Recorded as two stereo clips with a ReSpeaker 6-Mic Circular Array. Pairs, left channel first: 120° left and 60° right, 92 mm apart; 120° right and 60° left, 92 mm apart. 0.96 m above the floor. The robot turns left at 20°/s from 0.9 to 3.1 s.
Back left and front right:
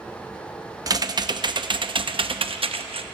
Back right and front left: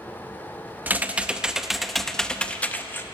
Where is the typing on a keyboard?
10° right, 0.6 m; by 3.0 s 55° right, 0.6 m.